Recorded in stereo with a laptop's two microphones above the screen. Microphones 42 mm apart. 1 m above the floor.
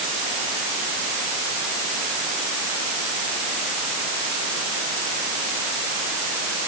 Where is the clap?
No clap in this recording.